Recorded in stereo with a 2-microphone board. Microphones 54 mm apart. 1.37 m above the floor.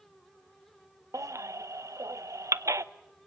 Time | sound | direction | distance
1.1 | a baby crying | 65° right (ahead or behind) | 0.8 m